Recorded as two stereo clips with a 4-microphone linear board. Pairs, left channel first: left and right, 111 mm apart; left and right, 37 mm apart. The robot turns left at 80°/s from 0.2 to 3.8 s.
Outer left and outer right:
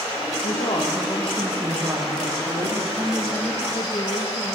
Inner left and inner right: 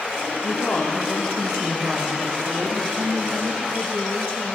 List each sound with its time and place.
0.4 s a woman speaking: 75° left, 5.5 m; by 2.9 s 120° right, 5.5 m
3.0 s a woman speaking: 160° right, 2.5 m; by 4.5 s 130° left, 2.5 m